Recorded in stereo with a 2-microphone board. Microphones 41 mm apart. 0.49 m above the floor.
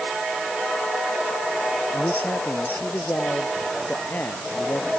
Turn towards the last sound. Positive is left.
turn(degrees=55)  # may be behind; listen again after turning